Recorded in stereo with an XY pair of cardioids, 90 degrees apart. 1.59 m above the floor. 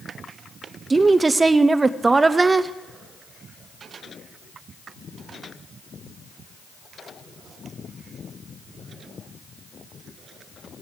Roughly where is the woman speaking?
Ahead right.